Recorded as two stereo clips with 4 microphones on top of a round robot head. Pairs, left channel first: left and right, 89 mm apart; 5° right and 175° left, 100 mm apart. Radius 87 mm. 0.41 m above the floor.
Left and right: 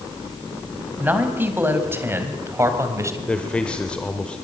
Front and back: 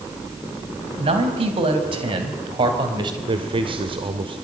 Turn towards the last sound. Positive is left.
turn(degrees=165)